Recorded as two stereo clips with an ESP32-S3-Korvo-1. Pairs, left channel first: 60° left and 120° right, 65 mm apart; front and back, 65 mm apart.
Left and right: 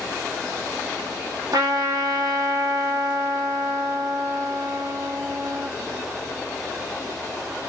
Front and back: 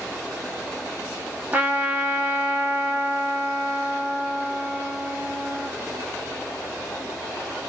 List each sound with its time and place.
1.5 s a trumpet: 115° right, 0.9 m